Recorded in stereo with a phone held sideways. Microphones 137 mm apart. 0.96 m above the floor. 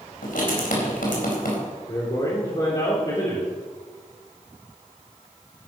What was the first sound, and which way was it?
Writing, 85° left.